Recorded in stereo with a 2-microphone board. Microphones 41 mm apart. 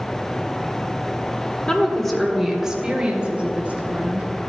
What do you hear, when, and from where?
1.7 s a woman speaking: 20° left (ahead or behind), 1.2 m; by 4.3 s 40° right (ahead or behind), 2.5 m